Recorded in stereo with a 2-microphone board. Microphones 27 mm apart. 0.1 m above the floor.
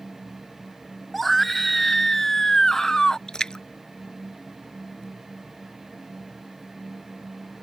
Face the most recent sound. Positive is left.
turn(degrees=30)  # may be behind; listen again after turning